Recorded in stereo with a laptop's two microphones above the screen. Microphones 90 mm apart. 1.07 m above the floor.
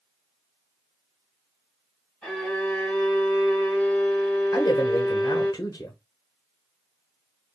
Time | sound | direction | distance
2.2 | a violin | 10° left (ahead or behind) | 2.5 m
4.5 | a man speaking | 40° left (ahead or behind) | 0.8 m